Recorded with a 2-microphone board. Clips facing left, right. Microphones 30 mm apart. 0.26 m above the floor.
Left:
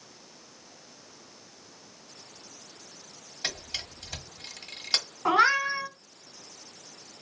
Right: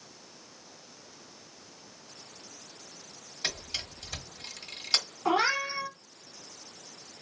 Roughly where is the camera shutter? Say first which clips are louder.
Even; centre.